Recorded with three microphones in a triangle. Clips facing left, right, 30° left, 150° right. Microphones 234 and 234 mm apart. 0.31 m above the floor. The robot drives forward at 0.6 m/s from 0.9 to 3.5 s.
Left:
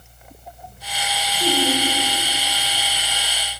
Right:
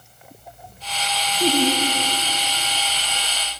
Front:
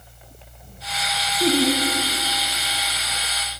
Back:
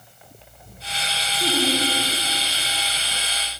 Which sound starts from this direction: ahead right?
Laughter, at 1.4 s.